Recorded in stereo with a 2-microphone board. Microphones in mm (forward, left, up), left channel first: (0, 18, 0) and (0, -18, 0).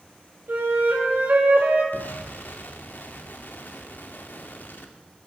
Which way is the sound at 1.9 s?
55° left (ahead or behind).